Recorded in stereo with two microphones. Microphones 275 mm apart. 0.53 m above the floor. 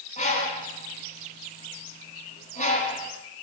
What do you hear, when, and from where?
0.2 s a bird: 25° left (ahead or behind), 1.2 m